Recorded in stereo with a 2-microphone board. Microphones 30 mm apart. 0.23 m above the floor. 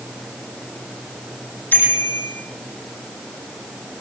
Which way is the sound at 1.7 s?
85° left.